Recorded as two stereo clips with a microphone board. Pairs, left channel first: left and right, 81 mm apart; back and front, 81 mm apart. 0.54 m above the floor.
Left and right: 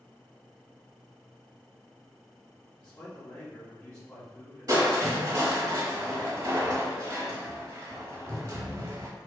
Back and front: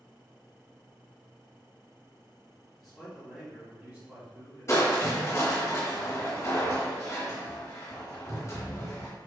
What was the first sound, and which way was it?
A man speaking, 110° left.